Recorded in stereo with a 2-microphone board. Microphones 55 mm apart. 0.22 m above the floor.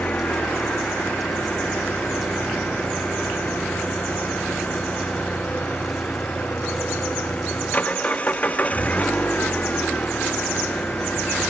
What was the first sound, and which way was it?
An engine running, 30° left (ahead or behind).